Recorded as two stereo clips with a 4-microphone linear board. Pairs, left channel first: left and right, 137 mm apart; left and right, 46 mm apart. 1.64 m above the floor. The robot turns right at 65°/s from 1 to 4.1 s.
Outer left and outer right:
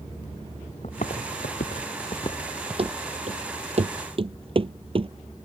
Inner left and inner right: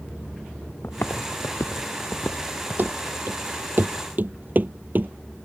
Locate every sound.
0.8 s footsteps: 55° left (ahead or behind); by 3.0 s 15° right (ahead or behind)
2.8 s running footsteps: 45° right (ahead or behind); by 5.1 s 40° right (ahead or behind)